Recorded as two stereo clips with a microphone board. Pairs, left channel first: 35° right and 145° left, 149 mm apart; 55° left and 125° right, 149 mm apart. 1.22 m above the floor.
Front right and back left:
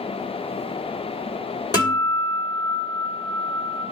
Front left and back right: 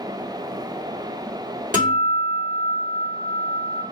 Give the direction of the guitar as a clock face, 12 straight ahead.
3 o'clock.